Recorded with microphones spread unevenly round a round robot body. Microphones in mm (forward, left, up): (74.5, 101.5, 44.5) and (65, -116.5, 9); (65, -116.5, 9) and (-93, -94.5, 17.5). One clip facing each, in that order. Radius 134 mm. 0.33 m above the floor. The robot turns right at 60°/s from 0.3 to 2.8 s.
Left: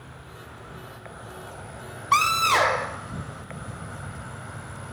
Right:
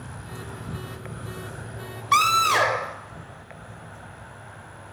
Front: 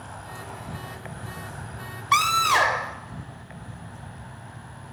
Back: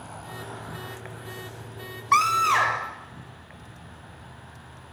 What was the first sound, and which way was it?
An insect, 100° right.